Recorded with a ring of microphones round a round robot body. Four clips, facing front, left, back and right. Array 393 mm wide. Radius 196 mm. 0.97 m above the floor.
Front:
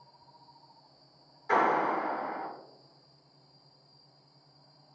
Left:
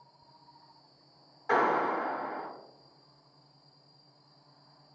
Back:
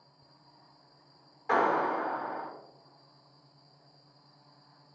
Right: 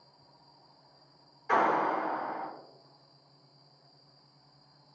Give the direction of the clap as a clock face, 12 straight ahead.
7 o'clock.